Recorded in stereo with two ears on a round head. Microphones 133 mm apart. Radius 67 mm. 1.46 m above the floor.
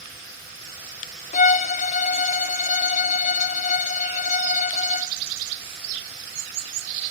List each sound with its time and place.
1.3 s a violin: 50° left (ahead or behind), 0.7 m